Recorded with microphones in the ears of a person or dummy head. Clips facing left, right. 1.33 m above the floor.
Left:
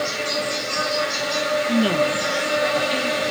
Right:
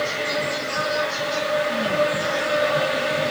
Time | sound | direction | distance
0.0 | an insect | 35° right (ahead or behind) | 1.6 m
1.7 | a woman speaking | 45° left (ahead or behind) | 0.5 m